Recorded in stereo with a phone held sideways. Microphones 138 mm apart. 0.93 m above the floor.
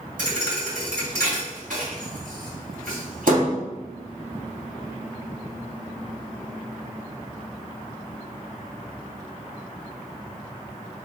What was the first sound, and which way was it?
A thud, 80° right.